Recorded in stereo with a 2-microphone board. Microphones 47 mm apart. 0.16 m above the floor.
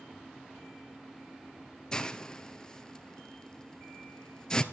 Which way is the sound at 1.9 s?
15° left (ahead or behind).